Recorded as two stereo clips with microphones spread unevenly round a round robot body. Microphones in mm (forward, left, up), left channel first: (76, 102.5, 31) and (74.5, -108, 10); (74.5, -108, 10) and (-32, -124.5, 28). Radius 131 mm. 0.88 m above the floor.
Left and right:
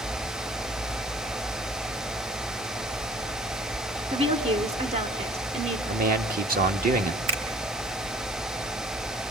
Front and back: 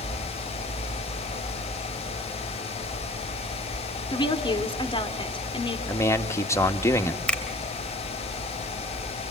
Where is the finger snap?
75° right, 3 m.